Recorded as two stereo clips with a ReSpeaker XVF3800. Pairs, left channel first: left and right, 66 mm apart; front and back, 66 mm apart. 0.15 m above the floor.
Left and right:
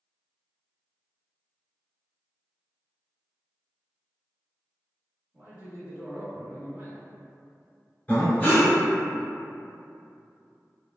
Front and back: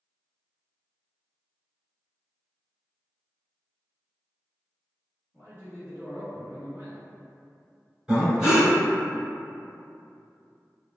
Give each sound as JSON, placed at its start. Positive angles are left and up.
{"t": 5.3, "sound": "a man speaking", "azimuth_deg": -140, "distance_m": 1.7}
{"t": 8.1, "sound": "breathing", "azimuth_deg": 120, "distance_m": 1.6}